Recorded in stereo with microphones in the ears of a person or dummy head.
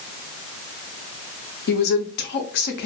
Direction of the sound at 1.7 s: 55° left (ahead or behind).